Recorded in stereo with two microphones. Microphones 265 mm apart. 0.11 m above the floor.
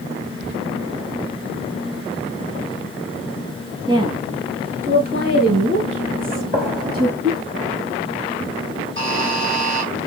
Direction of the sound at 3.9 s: 15° right (ahead or behind).